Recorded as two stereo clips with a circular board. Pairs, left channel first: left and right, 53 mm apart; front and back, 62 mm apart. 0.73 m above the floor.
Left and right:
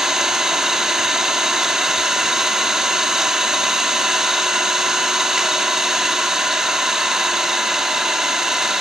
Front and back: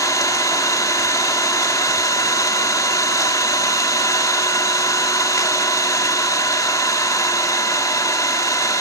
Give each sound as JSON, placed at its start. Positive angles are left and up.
{"t": 0.0, "sound": "an engine running", "azimuth_deg": -10, "distance_m": 1.2}